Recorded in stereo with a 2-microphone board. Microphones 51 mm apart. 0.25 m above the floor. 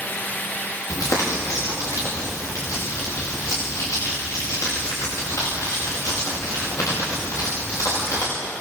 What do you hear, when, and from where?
0.9 s crumpling: 85° left, 10 m